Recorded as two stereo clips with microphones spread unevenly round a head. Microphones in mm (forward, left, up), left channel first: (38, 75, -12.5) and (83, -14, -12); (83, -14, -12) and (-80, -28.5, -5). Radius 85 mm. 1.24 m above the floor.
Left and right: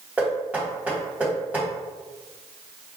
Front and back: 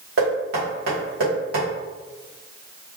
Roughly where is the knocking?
Behind right.